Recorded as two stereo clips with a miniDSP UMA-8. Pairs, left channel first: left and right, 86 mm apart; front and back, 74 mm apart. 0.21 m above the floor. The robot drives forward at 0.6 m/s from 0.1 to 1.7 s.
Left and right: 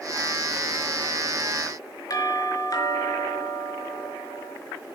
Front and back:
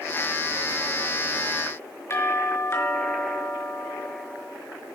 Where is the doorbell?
50° left, 4.5 m.